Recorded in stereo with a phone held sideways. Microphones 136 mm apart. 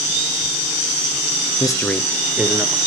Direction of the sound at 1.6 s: 35° left (ahead or behind).